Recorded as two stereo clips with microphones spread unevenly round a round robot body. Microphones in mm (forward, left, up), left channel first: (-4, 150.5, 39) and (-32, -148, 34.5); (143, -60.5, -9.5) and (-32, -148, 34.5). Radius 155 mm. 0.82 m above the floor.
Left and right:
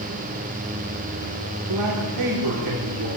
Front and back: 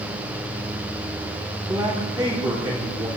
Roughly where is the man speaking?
Right.